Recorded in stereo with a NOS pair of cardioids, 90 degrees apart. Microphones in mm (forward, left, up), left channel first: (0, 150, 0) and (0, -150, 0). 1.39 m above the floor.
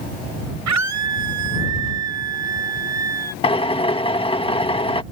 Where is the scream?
70° right; by 3.3 s 60° right.